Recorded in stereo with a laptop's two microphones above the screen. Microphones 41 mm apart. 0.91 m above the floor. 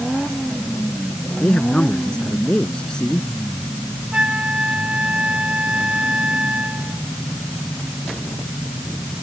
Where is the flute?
25° right (ahead or behind).